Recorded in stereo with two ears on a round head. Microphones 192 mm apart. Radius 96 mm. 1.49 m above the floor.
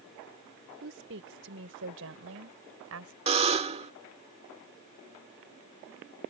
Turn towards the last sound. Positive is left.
turn(degrees=-30)  # may be behind; listen again after turning